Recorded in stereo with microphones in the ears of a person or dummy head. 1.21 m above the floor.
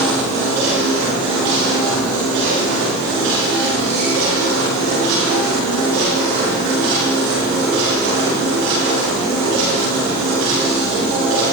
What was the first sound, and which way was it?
Only background noise.